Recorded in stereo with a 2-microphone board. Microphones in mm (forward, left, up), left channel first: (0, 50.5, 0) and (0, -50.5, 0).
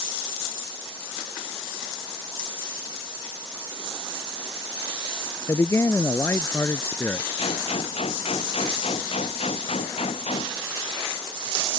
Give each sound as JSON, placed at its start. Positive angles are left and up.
{"t": 5.5, "sound": "a man speaking", "side_deg": 30}
{"t": 7.4, "sound": "a gunshot", "side_deg": 80}